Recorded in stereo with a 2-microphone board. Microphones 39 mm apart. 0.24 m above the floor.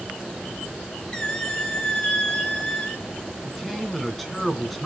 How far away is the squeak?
About 1.7 m.